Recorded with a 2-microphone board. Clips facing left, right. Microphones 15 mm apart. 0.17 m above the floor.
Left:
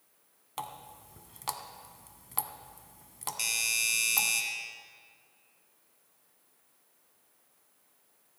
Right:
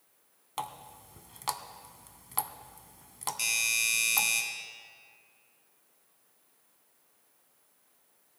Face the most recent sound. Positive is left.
turn(degrees=10)  # may be behind; listen again after turning